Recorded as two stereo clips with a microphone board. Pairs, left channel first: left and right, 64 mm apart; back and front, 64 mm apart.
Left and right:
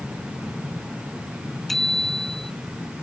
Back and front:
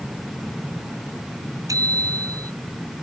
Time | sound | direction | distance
1.7 | a bicycle bell | 5° left | ?